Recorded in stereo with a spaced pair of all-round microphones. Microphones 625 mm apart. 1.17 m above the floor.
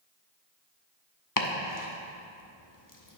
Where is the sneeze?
I don't hear a sneeze.